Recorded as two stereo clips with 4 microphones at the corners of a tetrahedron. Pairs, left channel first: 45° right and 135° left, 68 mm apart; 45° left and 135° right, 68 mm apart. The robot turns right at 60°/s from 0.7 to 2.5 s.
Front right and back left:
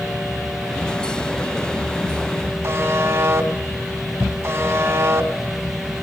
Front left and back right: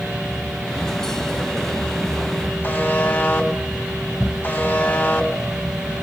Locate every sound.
2.6 s a buzzer: 110° left, 1.9 m